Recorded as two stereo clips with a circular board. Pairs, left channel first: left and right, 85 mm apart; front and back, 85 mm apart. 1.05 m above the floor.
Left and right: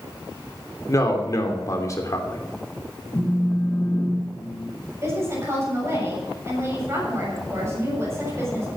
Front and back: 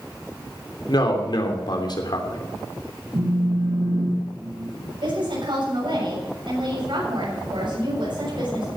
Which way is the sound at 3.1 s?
165° left.